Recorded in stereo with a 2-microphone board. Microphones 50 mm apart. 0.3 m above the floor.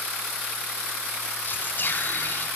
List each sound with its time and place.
1.4 s whispering: 40° left (ahead or behind), 2 m